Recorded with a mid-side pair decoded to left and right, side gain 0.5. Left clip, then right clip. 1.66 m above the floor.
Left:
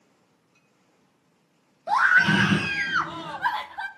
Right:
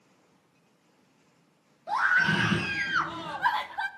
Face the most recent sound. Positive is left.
turn(degrees=-10)